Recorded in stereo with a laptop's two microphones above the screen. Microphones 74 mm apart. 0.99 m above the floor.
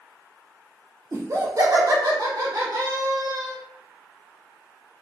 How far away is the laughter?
About 0.6 m.